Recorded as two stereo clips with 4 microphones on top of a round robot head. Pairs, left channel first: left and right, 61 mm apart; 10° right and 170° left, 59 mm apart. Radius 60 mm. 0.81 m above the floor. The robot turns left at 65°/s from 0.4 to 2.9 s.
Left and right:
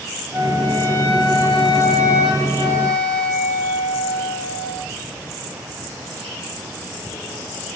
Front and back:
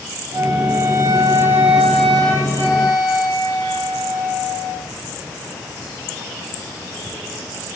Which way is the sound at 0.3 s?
Straight behind.